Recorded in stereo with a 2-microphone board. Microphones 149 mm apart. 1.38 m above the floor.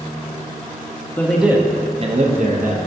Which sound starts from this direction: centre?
A man speaking, at 1.2 s.